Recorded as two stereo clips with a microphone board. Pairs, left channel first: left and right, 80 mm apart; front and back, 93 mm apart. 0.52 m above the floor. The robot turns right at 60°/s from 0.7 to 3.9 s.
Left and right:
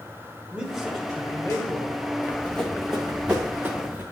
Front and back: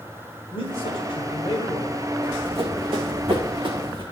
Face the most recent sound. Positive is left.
turn(degrees=-145)